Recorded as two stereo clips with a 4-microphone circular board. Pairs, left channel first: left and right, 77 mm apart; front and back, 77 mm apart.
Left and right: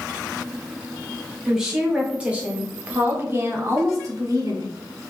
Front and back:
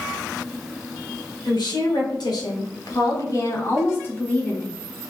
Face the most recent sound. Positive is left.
turn(degrees=-75)